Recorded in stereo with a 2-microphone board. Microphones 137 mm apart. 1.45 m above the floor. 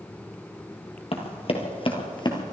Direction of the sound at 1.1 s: 45° left (ahead or behind).